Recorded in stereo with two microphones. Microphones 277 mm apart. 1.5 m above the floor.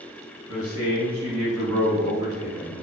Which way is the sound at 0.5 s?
60° right (ahead or behind).